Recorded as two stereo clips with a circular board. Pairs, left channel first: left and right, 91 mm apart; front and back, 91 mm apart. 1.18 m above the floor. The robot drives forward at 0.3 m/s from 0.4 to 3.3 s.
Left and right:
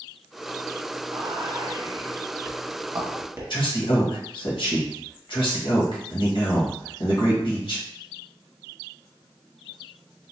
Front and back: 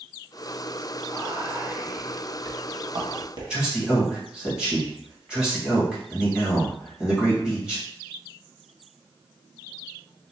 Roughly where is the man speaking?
Left.